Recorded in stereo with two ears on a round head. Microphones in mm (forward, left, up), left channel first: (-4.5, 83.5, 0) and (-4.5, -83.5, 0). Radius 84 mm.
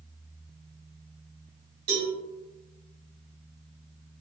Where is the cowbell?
65° right (ahead or behind), 1.5 m.